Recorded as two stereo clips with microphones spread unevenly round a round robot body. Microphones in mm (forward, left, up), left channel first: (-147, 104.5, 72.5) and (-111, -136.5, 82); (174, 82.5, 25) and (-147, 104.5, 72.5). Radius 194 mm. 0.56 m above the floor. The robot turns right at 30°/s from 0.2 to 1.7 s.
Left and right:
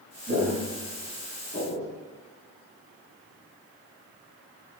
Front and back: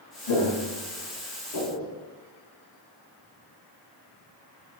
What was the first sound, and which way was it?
Footsteps, 10° right.